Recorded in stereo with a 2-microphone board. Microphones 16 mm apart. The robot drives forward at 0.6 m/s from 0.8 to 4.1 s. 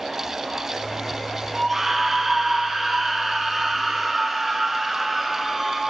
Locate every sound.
1.5 s a scream: 20° right (ahead or behind), 1.0 m; by 5.8 s 15° right (ahead or behind), 1.7 m